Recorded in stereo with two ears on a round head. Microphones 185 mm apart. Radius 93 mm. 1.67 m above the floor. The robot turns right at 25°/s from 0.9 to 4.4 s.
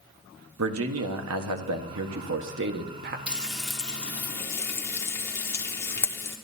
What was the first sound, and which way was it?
A man speaking, 105° right.